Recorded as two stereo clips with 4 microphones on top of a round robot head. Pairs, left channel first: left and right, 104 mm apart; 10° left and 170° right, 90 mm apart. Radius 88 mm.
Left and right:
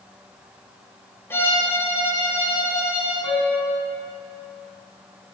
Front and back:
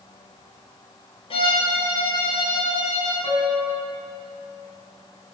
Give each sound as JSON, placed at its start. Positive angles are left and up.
{"t": 1.3, "sound": "a violin", "azimuth_deg": 20, "distance_m": 3.0}
{"t": 3.2, "sound": "a piano", "azimuth_deg": 50, "distance_m": 4.0}